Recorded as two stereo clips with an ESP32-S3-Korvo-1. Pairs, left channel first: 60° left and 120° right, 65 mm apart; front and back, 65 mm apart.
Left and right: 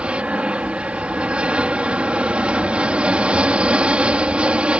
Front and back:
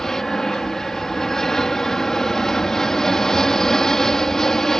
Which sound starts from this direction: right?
An aircraft, at 0.0 s.